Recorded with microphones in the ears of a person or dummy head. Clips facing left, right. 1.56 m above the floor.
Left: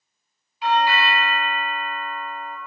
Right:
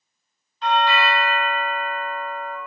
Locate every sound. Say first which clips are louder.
0.6 s a doorbell: even; 15° left (ahead or behind), 0.7 m